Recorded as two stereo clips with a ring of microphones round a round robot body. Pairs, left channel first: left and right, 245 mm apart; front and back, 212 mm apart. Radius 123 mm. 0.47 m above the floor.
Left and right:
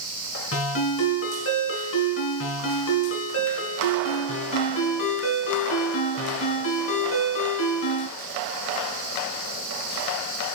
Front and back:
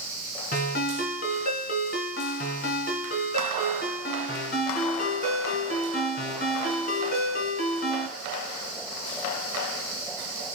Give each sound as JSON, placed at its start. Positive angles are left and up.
{"t": 0.5, "sound": "a ringtone", "azimuth_deg": 50, "distance_m": 3.0}